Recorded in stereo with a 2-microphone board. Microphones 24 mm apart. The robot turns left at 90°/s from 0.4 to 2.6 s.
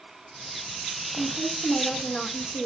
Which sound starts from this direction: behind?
A woman speaking, at 1.2 s.